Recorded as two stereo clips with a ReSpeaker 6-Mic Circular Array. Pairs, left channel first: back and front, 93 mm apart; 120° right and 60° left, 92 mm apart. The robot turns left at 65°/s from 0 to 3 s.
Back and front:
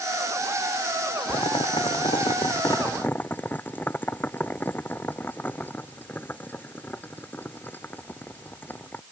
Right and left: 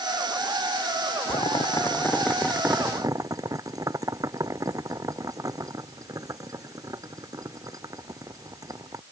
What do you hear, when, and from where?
1.3 s boiling: 140° right; by 9.0 s 110° left